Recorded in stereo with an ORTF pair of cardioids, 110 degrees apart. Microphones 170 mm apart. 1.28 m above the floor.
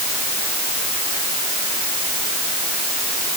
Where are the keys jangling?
No keys jangling in this recording.